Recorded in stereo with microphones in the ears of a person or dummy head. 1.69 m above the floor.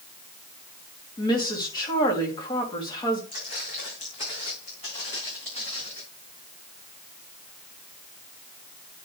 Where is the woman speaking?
30° left (ahead or behind), 3 m.